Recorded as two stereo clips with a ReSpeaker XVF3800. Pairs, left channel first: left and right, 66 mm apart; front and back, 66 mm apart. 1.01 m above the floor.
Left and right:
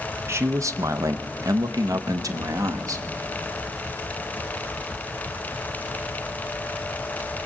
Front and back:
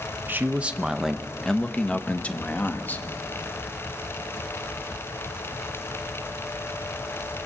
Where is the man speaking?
130° right, 0.8 m; by 3.0 s 60° right, 1.7 m.